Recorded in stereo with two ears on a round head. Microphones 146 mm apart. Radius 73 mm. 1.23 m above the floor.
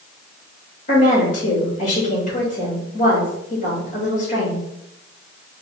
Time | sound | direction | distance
0.9 | a woman speaking | 50° left (ahead or behind) | 2.5 m